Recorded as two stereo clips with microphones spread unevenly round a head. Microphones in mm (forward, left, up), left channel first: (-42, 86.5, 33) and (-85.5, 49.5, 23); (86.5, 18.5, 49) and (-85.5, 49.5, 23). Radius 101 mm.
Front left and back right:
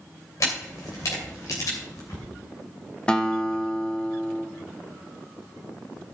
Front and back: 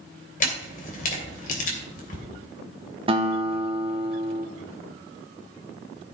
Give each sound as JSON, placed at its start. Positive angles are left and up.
{"t": 0.4, "sound": "a camera shutter", "azimuth_deg": 25, "distance_m": 3.0}
{"t": 3.1, "sound": "a guitar", "azimuth_deg": 110, "distance_m": 1.3}